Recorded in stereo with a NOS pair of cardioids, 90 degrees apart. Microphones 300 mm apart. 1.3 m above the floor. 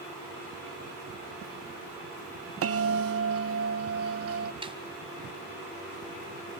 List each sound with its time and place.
2.6 s a bell: 55° right, 1.0 m
4.6 s a snare drum: 20° right, 3 m